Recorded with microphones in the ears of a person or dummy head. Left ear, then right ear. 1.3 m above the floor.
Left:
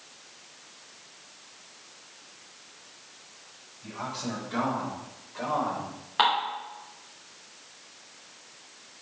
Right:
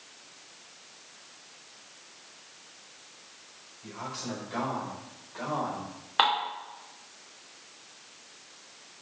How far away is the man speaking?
About 4.5 m.